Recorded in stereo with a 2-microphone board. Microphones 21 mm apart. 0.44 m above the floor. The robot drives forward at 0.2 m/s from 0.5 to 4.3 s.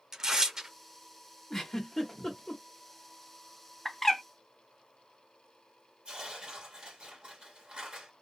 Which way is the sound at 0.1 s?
35° right (ahead or behind).